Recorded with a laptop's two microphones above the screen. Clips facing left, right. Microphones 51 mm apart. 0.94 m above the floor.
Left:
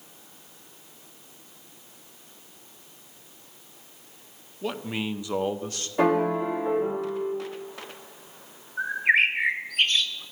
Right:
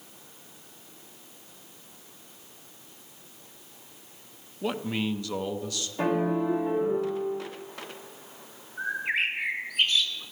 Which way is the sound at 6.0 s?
60° left (ahead or behind).